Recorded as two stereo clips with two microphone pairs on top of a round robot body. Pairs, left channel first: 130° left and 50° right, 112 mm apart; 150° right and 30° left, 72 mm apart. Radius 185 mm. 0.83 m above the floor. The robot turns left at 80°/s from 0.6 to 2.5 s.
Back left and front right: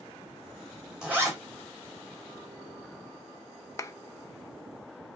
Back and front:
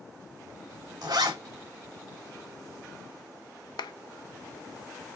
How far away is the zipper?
About 2.5 m.